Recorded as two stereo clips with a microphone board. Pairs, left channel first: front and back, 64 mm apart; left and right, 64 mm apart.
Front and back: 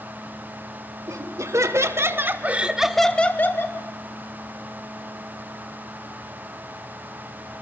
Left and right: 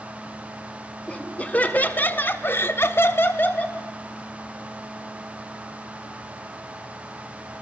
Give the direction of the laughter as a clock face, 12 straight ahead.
7 o'clock.